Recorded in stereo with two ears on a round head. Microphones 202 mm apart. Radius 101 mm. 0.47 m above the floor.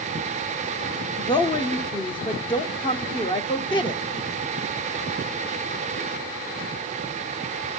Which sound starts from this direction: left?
A woman speaking, at 1.2 s.